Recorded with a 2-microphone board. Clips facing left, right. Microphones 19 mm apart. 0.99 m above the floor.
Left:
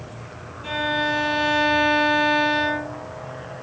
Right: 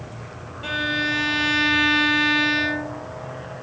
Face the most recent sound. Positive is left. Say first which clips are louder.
# even
turn(degrees=-70)  # may be behind; listen again after turning